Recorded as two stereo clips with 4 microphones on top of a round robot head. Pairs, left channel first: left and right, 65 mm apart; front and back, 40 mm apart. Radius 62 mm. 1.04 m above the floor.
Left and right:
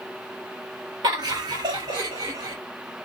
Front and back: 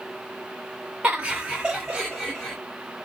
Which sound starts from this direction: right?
Laughter, at 1.0 s.